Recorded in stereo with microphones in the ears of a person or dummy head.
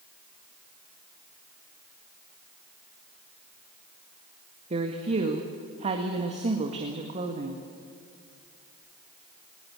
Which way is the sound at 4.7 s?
35° right (ahead or behind).